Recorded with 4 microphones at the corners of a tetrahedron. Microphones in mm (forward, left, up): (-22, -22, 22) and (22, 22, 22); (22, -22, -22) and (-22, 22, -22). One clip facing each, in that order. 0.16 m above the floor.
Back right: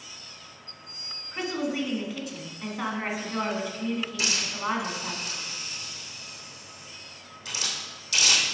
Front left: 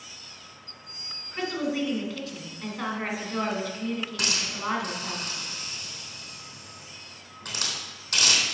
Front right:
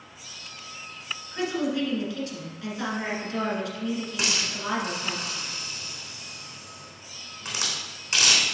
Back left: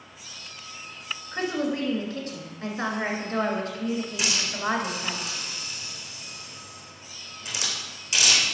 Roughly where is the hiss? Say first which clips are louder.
Even, back left 1 dB; ahead.